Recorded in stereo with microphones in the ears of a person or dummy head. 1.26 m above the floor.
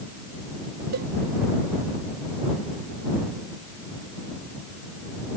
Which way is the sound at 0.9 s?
60° right (ahead or behind).